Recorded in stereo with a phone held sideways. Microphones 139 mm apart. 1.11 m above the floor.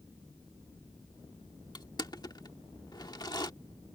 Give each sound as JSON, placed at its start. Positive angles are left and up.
{"t": 1.8, "sound": "crushing", "side_deg": 30}